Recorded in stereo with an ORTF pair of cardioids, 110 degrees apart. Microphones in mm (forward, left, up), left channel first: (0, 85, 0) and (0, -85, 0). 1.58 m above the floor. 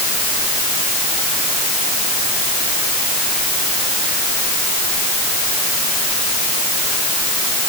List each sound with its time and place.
Only background noise.